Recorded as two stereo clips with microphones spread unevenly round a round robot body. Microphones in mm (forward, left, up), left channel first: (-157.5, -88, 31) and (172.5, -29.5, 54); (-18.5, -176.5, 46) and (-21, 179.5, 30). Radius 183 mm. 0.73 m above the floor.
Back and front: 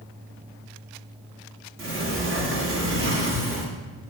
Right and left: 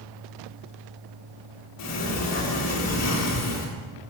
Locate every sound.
1.8 s a sliding door: 45° right, 1.5 m